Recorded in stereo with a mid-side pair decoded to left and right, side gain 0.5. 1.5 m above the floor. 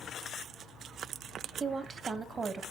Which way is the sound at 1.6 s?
35° right.